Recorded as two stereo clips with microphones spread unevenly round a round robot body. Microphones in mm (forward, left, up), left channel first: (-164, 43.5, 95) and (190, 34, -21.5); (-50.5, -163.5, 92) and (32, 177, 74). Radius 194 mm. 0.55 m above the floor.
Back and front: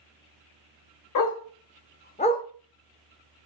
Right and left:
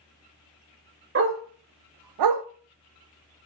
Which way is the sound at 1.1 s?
135° left.